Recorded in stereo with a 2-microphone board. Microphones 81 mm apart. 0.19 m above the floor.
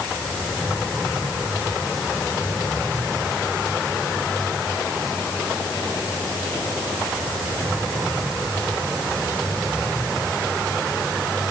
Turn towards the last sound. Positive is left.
No sound to turn to.